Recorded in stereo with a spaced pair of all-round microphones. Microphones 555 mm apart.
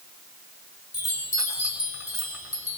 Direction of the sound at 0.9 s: 70° left (ahead or behind).